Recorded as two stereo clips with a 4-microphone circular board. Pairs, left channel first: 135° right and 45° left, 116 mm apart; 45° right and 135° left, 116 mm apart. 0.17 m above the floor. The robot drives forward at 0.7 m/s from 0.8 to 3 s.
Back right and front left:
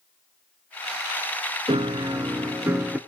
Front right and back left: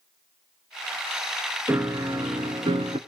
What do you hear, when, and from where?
1.7 s a piano: 70° left, 1.1 m; by 3.0 s 125° left, 1.2 m